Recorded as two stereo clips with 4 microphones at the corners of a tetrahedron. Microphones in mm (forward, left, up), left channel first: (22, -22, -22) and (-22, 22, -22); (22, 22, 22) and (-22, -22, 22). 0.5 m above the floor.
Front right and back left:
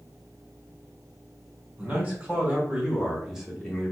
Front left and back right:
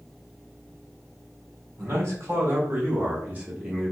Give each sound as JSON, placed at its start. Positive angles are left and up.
{"t": 1.8, "sound": "a man speaking", "azimuth_deg": -165, "distance_m": 1.6}